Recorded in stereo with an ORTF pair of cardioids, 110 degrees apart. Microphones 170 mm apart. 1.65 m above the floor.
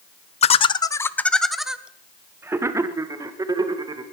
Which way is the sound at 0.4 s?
40° left.